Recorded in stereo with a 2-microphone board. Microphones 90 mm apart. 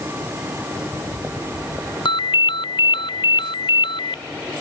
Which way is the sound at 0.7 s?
15° right (ahead or behind).